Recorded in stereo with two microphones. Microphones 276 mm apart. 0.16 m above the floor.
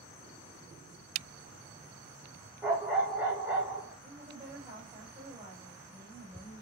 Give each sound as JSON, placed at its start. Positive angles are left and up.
{"t": 2.6, "sound": "a dog barking", "side_deg": -5, "distance_m": 4.5}
{"t": 4.0, "sound": "a woman speaking", "side_deg": -10, "distance_m": 5.5}